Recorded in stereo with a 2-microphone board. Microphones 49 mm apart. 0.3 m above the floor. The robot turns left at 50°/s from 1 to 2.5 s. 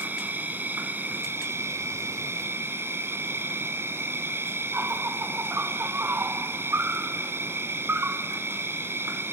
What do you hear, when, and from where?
0.0 s an insect: 40° right, 1.1 m; by 9.3 s 115° right, 1.1 m